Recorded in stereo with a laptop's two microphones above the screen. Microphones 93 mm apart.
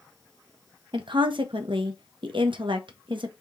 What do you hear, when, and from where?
0.9 s a woman speaking: 65° right (ahead or behind), 0.8 m